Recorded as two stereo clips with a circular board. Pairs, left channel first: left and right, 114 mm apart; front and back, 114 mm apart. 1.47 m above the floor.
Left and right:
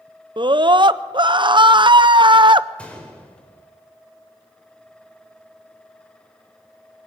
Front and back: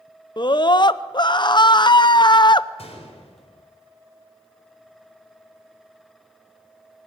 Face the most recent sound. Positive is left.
turn(degrees=10)